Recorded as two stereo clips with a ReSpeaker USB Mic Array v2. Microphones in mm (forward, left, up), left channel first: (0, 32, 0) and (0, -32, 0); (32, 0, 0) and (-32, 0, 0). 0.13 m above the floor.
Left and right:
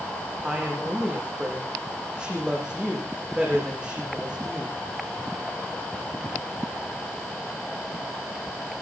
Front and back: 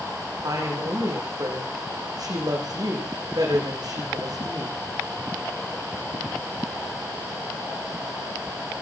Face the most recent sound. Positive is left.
turn(degrees=-165)